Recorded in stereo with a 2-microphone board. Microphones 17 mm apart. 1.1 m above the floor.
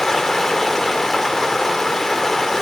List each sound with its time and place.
0.0 s running water: 30° left (ahead or behind), 1.2 m